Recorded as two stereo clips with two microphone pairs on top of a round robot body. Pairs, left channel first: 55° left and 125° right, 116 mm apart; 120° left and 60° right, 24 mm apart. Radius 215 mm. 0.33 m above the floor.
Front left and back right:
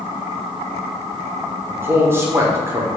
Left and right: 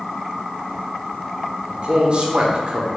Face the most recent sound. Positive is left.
turn(degrees=-70)